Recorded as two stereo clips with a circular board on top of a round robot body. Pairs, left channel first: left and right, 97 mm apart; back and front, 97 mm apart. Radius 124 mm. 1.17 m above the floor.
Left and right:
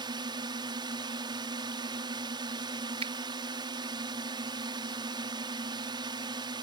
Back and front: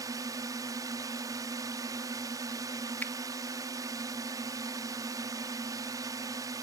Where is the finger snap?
105° right.